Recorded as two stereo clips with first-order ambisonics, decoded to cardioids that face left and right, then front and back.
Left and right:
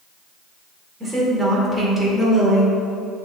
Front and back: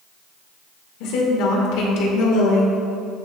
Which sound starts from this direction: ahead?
A woman speaking, at 1.0 s.